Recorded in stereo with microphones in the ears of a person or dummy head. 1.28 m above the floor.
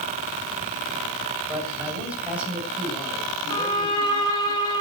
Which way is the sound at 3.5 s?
25° left (ahead or behind).